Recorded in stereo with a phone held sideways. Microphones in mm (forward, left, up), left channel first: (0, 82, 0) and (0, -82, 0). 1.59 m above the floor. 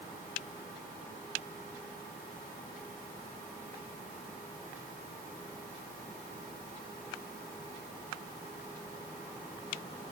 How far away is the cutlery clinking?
I don't hear cutlery clinking.